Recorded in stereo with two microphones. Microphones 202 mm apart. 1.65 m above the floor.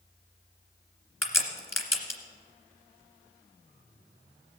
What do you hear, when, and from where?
1.2 s a crack: 10° left (ahead or behind), 2.0 m